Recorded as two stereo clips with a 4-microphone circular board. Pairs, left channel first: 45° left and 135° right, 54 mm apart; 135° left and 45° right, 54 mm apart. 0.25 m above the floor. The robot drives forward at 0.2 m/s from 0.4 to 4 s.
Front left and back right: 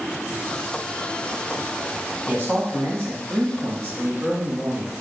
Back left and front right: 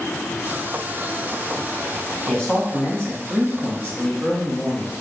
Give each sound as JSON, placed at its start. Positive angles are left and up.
{"t": 2.3, "sound": "a man speaking", "azimuth_deg": -150, "distance_m": 1.2}